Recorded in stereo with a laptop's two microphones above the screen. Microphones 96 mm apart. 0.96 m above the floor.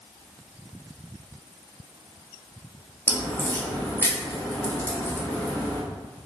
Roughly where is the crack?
Left.